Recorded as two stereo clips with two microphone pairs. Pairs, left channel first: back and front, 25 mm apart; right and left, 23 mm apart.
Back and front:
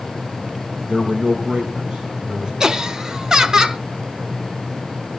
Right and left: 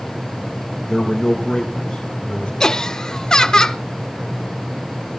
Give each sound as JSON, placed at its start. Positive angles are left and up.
{"t": 0.9, "sound": "a man speaking", "azimuth_deg": -15, "distance_m": 3.0}
{"t": 2.6, "sound": "laughter", "azimuth_deg": -55, "distance_m": 0.9}